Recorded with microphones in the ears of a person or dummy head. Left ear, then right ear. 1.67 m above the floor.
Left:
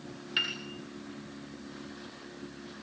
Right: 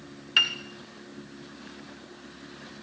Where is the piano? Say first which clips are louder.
Right 8 dB; 35° right (ahead or behind), 2.5 m.